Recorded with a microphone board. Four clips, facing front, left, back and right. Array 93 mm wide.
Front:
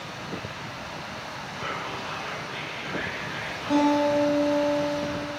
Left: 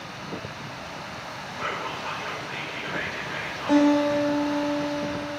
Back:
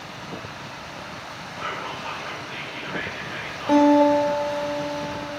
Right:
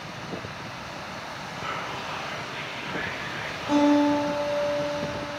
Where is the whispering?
160° left, 3.5 m.